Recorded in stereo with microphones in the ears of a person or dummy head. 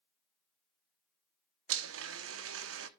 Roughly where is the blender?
Right.